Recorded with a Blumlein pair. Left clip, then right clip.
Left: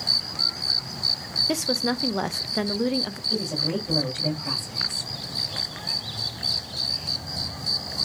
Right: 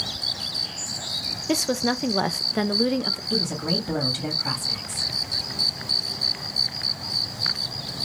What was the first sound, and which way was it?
A woman speaking, 5° right.